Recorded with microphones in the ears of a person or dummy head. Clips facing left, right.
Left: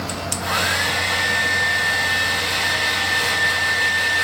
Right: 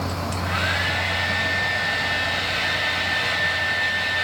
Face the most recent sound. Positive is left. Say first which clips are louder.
# left 1 dB
turn(degrees=60)  # may be behind; listen again after turning